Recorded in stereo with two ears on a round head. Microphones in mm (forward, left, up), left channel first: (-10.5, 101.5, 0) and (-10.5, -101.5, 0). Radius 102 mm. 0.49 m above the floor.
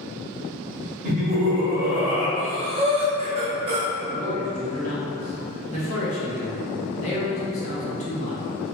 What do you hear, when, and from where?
1.0 s laughter: 35° right (ahead or behind), 1.1 m; by 2.3 s centre (ahead or behind), 1.8 m
2.4 s breathing: 25° right (ahead or behind), 0.8 m
4.1 s a man speaking: 35° left (ahead or behind), 1.0 m